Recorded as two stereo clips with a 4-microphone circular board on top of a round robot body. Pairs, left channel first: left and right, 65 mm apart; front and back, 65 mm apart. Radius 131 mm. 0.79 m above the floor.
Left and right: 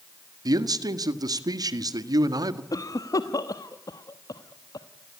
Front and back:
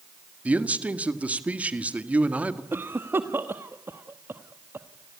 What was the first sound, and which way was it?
A man speaking, 110° right.